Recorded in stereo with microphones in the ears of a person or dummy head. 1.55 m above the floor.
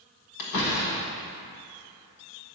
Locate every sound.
0.4 s a door slam: 60° left (ahead or behind), 1.6 m